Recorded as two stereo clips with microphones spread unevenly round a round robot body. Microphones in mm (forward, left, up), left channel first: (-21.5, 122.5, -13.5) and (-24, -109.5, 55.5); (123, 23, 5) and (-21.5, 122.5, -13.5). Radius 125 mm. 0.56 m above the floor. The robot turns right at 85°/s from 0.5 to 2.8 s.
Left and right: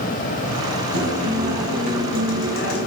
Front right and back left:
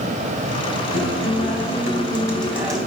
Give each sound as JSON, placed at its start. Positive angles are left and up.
{"t": 0.9, "sound": "a guitar", "azimuth_deg": -75, "distance_m": 4.0}